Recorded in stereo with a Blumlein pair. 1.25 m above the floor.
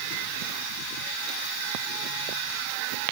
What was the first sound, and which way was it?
Only background noise.